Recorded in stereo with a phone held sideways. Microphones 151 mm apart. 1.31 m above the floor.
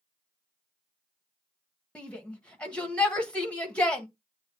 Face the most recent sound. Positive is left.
turn(degrees=10)  # may be behind; listen again after turning